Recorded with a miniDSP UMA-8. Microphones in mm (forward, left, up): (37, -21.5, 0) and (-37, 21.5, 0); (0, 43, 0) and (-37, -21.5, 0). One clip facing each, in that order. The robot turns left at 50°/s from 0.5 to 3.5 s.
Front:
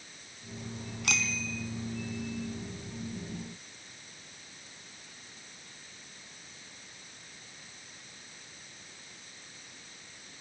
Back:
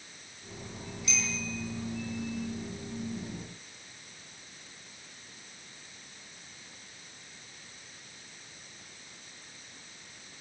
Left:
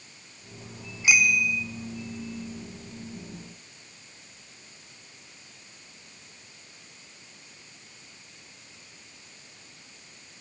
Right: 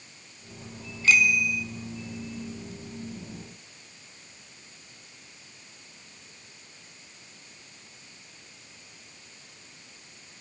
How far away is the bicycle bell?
About 3.5 m.